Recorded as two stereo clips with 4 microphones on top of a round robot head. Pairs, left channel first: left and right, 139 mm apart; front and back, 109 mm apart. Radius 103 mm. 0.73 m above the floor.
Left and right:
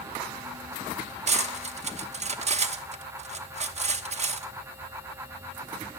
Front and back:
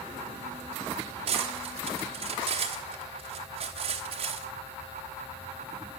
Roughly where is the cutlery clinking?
Behind right.